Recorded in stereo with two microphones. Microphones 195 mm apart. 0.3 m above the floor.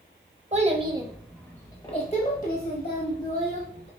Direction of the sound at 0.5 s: 35° right (ahead or behind).